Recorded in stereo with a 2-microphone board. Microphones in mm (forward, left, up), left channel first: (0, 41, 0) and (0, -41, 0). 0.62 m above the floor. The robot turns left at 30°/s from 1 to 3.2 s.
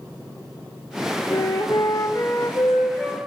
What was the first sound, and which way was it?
A flute, 60° left.